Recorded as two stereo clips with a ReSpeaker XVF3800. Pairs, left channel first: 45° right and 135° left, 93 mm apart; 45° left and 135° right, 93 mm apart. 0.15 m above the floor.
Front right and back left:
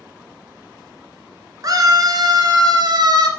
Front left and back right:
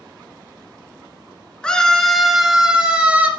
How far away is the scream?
About 1.6 m.